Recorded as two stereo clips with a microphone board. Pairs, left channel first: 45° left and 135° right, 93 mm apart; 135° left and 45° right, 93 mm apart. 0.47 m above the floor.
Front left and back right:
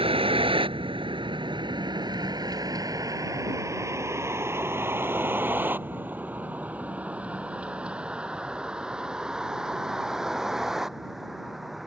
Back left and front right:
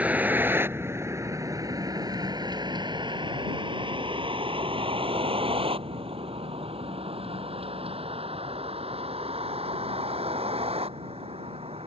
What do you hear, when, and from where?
0.0 s a vehicle: 120° right; by 11.9 s 45° right